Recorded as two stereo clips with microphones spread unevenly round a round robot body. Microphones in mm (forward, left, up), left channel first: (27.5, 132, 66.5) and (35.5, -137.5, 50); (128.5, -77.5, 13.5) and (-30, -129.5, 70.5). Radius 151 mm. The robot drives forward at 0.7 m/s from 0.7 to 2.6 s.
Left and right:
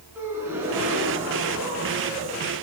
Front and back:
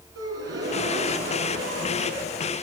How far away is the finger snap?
No finger snap in this recording.